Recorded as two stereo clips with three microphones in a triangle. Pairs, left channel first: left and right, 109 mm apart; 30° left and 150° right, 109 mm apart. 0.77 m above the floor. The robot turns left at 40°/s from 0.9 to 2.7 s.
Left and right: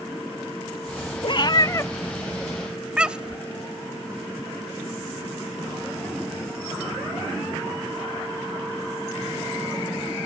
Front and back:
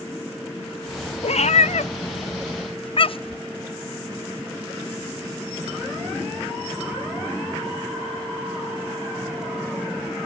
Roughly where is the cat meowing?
Ahead left.